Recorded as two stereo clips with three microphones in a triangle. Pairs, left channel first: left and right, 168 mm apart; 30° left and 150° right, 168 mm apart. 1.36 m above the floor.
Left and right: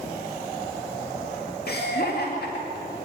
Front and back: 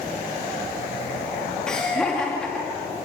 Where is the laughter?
115° left, 2.5 m.